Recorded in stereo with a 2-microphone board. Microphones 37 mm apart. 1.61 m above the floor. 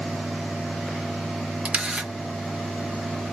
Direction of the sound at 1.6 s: 35° right (ahead or behind).